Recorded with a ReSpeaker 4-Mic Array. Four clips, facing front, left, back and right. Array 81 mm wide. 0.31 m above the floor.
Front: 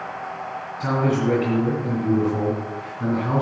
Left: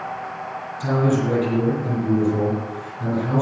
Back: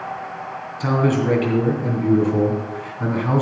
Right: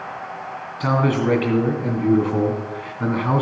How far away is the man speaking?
About 2.5 m.